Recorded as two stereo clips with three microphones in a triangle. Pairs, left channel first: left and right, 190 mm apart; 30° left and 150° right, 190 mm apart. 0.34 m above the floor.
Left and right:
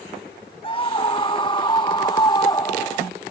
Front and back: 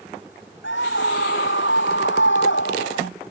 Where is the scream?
30° left; by 3.1 s 20° left.